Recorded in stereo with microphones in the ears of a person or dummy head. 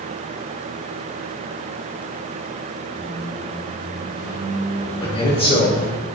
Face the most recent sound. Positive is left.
turn(degrees=25)  # may be behind; listen again after turning